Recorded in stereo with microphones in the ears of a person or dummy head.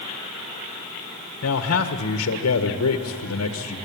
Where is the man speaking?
75° left (ahead or behind), 1.6 m.